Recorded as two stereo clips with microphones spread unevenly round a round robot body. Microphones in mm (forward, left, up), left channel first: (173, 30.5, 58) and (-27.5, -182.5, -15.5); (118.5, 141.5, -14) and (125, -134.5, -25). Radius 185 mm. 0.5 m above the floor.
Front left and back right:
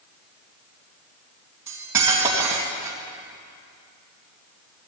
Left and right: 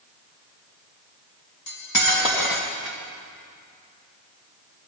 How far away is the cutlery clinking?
About 2.5 m.